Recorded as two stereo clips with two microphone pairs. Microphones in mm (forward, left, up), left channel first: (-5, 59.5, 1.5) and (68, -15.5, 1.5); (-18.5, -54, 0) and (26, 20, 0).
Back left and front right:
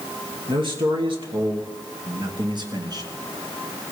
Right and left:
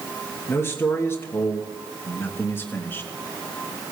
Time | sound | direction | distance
0.5 | a man speaking | 65° right | 3.5 m